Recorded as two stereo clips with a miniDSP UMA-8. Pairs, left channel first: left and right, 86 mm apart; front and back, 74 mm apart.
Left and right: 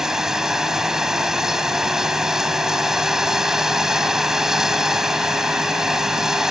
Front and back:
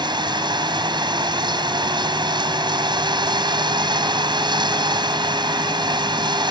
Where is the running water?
175° right.